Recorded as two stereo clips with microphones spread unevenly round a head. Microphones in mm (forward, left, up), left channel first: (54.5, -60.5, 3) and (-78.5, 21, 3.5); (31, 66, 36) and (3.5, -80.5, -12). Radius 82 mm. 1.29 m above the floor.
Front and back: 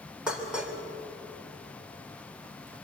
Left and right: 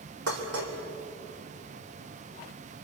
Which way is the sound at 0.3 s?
125° right.